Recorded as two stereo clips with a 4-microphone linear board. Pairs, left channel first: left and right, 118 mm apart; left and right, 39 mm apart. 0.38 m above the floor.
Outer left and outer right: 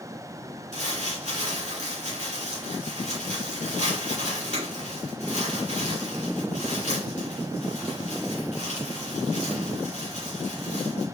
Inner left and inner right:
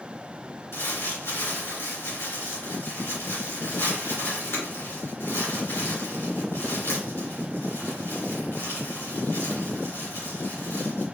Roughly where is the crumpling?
Left.